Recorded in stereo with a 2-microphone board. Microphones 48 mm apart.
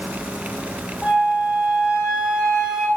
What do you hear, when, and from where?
1.0 s a flute: 5° right (ahead or behind), 1.0 m